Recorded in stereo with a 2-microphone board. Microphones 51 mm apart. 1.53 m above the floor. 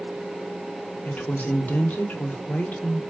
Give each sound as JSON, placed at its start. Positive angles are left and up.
{"t": 1.1, "sound": "a woman speaking", "side_deg": 35, "distance_m": 1.0}